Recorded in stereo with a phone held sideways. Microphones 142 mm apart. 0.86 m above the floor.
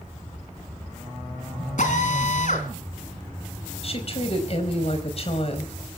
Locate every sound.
1.8 s a drill: 60° left (ahead or behind), 3.5 m
3.8 s a woman speaking: 45° left (ahead or behind), 4.5 m